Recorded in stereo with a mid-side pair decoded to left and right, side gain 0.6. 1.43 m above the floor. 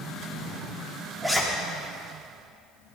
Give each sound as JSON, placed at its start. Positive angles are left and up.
{"t": 1.2, "sound": "a zipper", "azimuth_deg": -10, "distance_m": 3.5}